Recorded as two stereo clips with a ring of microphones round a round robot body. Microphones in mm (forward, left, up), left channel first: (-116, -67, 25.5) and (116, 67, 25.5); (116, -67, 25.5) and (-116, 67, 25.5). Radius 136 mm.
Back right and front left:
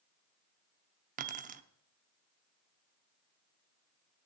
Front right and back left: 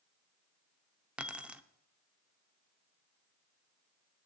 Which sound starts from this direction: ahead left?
Keys jangling, at 1.2 s.